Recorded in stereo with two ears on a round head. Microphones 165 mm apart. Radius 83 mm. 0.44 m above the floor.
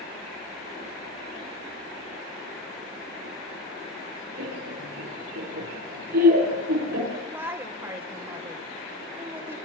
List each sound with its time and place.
4.4 s laughter: 50° right (ahead or behind), 6.5 m
7.1 s a woman speaking: 10° right (ahead or behind), 1.7 m